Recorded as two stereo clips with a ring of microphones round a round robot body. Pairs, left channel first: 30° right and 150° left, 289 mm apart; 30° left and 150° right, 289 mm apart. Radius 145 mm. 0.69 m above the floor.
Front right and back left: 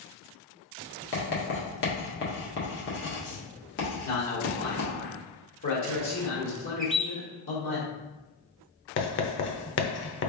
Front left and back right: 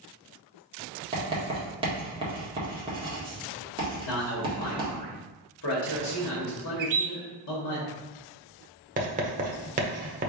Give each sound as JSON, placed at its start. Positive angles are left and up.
{"t": 1.1, "sound": "writing", "azimuth_deg": -80, "distance_m": 1.6}
{"t": 4.0, "sound": "a man speaking", "azimuth_deg": 10, "distance_m": 1.6}
{"t": 6.8, "sound": "a bird", "azimuth_deg": -120, "distance_m": 1.0}
{"t": 9.0, "sound": "writing", "azimuth_deg": -85, "distance_m": 0.9}